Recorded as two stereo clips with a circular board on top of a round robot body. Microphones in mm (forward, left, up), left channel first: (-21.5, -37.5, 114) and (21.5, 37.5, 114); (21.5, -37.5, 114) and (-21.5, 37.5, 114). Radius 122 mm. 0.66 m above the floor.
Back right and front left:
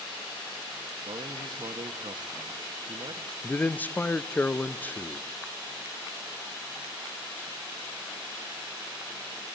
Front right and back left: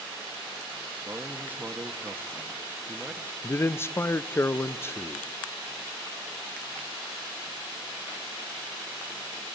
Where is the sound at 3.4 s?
75° right, 0.5 m.